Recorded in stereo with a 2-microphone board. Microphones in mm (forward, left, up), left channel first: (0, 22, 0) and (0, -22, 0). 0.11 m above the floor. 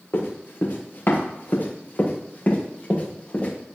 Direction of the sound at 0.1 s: 55° left (ahead or behind).